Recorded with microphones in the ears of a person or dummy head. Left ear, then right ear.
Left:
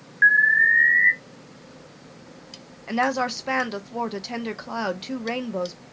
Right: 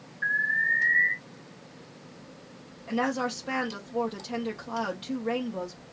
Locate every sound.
0.2 s an alarm: 60° left (ahead or behind), 1.4 m
2.9 s a woman speaking: 20° left (ahead or behind), 0.7 m